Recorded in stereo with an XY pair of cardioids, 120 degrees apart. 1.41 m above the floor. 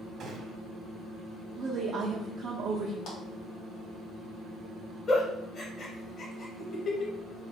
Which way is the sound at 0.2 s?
50° right.